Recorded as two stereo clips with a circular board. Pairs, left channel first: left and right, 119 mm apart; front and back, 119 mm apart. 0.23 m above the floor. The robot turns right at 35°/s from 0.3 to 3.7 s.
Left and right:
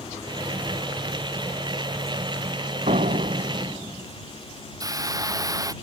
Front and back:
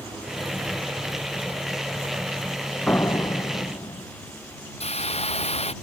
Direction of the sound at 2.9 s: 75° right.